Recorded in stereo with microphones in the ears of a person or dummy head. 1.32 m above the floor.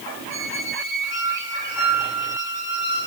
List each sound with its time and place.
0.3 s a squeak: 75° left (ahead or behind), 5 m